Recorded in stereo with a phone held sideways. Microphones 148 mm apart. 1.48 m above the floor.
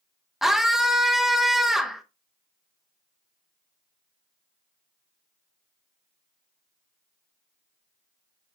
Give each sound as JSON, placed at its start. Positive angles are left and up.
{"t": 0.4, "sound": "a scream", "side_deg": 0, "distance_m": 1.1}